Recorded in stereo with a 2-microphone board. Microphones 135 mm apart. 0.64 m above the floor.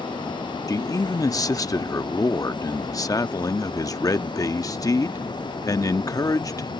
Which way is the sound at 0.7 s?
25° left (ahead or behind).